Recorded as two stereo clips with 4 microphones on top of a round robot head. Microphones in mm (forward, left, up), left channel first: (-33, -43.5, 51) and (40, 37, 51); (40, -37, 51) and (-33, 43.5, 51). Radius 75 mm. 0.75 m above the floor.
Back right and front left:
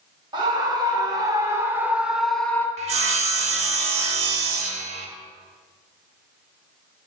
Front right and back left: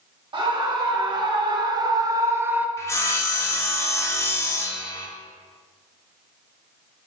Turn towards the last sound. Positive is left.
turn(degrees=20)